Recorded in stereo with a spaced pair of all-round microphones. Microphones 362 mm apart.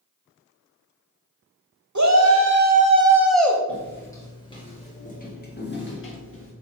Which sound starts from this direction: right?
A shout, at 1.9 s.